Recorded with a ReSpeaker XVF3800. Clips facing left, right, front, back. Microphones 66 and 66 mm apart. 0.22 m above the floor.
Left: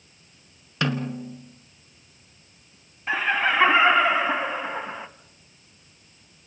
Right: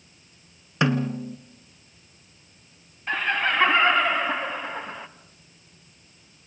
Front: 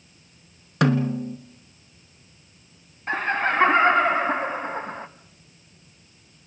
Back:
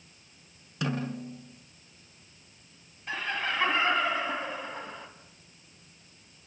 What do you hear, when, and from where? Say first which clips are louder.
0.8 s a snare drum: right 3 dB, front 11 dB; 20° right, 1.7 m
3.1 s laughter: left 2 dB, front 9 dB; 10° left, 1.3 m